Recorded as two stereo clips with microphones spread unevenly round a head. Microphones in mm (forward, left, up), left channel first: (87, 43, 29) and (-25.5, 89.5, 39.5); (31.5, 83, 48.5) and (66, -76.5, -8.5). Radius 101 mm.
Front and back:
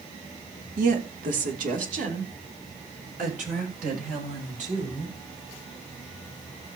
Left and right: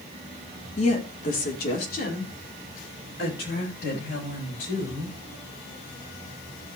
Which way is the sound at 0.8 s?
165° left.